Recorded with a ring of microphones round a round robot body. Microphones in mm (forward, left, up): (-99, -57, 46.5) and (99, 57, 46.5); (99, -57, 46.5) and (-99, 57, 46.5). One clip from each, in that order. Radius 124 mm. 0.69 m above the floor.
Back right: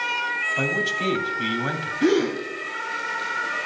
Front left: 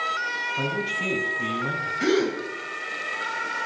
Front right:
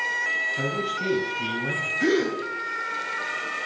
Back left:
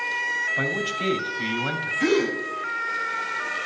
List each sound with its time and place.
0.6 s a man speaking: 170° left, 2.5 m
2.0 s a gasp: 60° left, 5 m